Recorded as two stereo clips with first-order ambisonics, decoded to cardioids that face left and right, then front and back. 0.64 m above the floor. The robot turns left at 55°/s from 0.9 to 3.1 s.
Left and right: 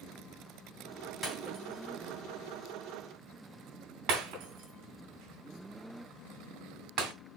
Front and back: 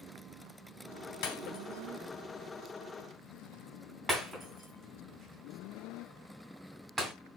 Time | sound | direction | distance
1.2 | breaking glass | 5° left | 1.8 m